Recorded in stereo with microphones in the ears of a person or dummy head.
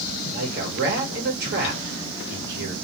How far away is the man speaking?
About 1.3 m.